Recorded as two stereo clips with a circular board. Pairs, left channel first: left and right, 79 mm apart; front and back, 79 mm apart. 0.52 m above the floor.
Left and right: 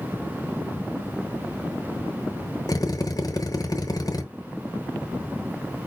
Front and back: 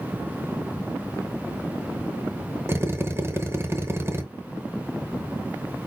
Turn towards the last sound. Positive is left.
turn(degrees=125)